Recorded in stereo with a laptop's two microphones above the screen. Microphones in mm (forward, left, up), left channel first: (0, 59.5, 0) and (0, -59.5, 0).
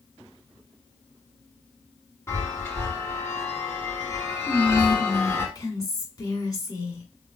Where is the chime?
20° left (ahead or behind), 1.4 m.